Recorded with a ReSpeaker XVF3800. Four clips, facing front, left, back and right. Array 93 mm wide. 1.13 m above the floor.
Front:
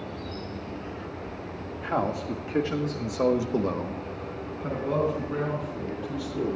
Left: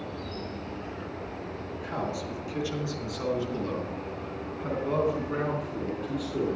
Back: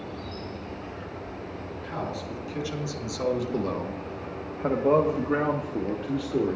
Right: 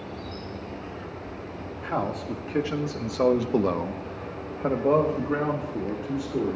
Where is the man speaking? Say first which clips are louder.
Right 5 dB, front 7 dB; 30° right, 2 m; by 6.6 s 165° right, 2.5 m.